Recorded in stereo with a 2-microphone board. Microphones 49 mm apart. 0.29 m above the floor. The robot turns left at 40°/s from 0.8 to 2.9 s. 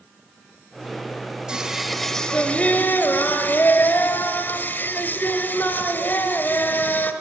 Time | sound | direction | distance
1.5 | singing | 165° right | 1.6 m